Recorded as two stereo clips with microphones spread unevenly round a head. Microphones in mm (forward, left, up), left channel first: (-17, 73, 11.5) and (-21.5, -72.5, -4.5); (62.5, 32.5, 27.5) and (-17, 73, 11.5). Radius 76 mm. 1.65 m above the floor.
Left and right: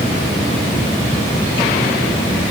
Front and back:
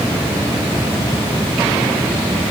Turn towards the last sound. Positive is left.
No sound to turn to.